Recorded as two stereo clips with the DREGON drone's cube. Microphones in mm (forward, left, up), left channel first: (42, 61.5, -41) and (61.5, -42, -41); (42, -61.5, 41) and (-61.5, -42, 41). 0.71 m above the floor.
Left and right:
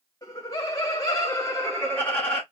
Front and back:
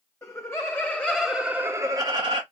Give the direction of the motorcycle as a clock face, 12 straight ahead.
I don't hear a motorcycle.